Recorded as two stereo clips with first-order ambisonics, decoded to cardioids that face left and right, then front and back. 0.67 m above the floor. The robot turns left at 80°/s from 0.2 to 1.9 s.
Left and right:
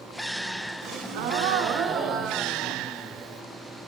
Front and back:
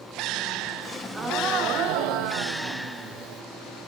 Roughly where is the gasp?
Ahead right.